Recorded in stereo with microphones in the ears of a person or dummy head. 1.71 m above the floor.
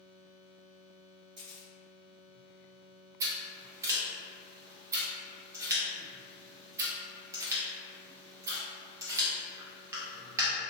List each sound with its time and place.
1.4 s a camera shutter: 50° right (ahead or behind), 1.4 m
3.2 s scissors: 15° right (ahead or behind), 0.8 m